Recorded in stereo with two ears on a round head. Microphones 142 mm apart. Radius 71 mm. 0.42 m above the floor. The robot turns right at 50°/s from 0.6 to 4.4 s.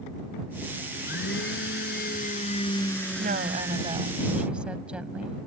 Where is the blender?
60° left; by 4.2 s 135° right.